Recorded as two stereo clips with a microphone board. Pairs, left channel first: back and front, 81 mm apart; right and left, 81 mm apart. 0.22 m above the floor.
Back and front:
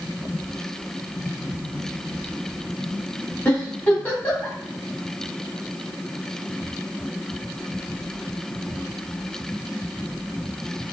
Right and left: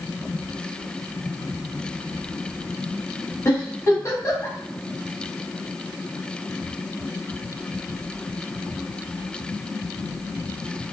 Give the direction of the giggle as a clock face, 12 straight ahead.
4 o'clock.